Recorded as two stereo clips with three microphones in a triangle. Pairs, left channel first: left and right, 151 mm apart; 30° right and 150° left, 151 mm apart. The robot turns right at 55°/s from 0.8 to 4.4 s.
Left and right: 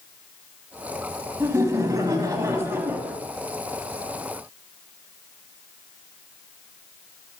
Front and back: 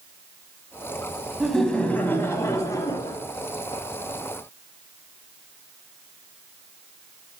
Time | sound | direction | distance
1.4 | laughter | 120° right | 1.1 m